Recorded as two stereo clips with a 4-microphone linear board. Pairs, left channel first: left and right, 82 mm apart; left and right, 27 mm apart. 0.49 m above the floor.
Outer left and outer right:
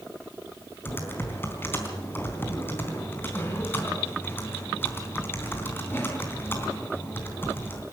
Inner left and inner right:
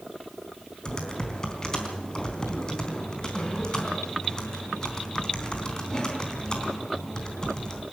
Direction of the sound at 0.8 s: 25° left (ahead or behind).